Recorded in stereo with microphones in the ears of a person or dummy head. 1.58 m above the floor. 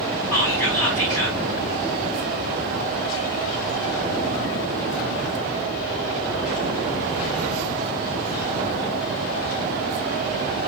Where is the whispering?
15° left (ahead or behind), 1.5 m.